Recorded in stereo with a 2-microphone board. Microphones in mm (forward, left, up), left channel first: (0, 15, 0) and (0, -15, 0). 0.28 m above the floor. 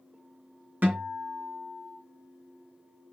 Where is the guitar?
60° right (ahead or behind), 2 m.